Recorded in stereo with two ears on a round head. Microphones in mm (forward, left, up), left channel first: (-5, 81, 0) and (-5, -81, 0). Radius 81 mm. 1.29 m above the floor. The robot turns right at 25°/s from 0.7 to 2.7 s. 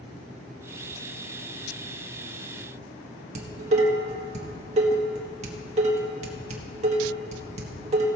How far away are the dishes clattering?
About 1.5 m.